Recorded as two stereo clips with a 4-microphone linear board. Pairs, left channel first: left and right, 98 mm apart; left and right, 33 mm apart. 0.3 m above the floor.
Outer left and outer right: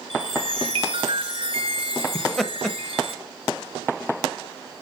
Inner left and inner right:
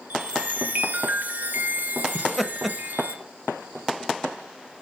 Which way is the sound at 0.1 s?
85° right.